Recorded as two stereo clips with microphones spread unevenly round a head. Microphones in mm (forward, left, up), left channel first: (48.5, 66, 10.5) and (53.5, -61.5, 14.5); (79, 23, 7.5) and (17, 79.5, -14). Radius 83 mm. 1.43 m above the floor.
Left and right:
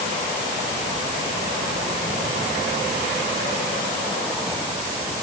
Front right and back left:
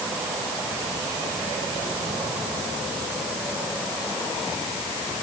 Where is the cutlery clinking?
No cutlery clinking in this recording.